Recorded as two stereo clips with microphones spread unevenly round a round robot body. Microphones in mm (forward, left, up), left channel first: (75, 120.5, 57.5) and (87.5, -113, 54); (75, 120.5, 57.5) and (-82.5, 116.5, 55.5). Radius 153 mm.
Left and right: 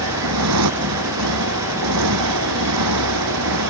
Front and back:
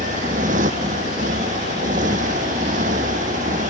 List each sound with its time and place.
0.0 s a motorcycle: 115° right